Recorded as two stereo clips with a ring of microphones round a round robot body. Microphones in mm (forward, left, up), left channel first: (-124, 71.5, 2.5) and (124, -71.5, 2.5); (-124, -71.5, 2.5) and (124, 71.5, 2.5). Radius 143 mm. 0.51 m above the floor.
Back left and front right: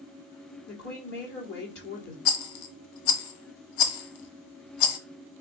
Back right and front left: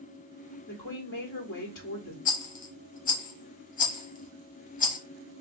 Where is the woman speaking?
Straight behind, 1.8 m.